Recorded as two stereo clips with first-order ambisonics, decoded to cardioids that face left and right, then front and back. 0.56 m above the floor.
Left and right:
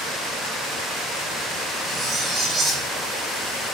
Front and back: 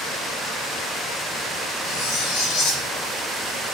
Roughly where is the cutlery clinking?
Ahead.